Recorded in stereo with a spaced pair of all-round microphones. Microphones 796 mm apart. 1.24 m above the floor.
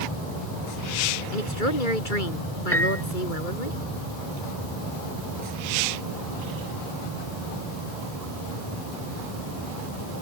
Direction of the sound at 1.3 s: 80° left.